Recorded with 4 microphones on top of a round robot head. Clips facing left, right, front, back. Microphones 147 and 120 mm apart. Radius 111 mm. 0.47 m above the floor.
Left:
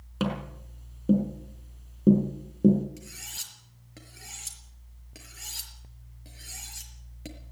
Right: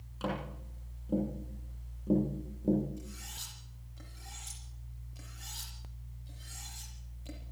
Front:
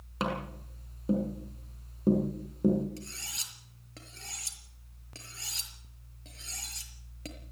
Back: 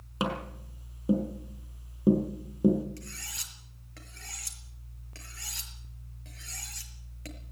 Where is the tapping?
100° left, 6 m.